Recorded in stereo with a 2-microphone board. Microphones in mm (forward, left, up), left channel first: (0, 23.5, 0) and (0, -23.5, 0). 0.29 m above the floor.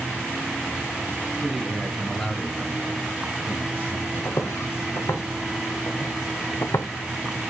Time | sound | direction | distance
1.4 | a man speaking | centre (ahead or behind) | 3.5 m
4.2 | footsteps | 85° left | 4 m